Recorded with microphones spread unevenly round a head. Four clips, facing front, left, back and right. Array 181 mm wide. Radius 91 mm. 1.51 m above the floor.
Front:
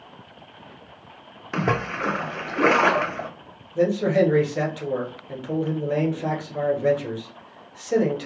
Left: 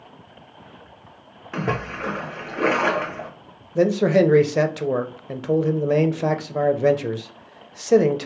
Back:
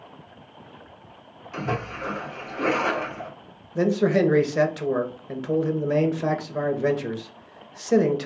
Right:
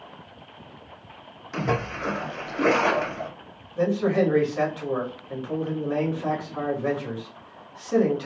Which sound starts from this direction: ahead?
A splash, at 1.5 s.